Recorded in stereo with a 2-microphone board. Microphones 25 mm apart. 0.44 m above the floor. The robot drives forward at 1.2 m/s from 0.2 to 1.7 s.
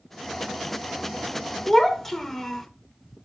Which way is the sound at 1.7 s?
15° left (ahead or behind).